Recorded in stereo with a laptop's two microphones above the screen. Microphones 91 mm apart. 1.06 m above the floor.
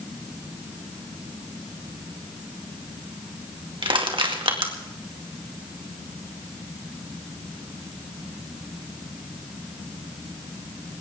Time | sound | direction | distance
3.8 | crushing | 70° right (ahead or behind) | 2 m